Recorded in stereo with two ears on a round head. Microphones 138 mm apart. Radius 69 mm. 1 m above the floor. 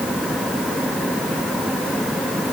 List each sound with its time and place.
Only background noise.